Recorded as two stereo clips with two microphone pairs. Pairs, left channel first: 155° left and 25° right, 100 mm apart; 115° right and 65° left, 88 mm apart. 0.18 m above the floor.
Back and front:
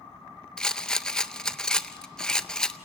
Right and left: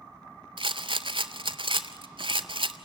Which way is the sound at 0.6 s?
70° left.